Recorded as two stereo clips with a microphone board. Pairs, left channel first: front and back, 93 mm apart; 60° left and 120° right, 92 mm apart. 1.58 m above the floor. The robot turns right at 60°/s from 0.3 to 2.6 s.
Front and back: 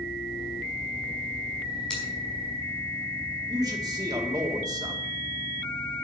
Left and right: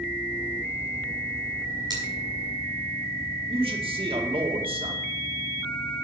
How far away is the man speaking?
About 2 m.